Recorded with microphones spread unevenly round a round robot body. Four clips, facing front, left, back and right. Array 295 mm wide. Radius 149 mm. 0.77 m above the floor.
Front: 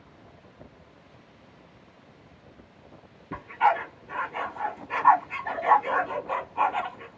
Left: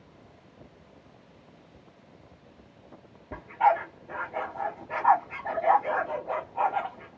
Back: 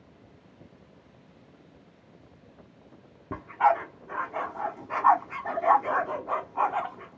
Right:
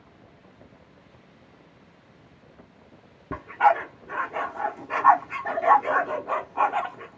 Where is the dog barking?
115° right, 0.8 m.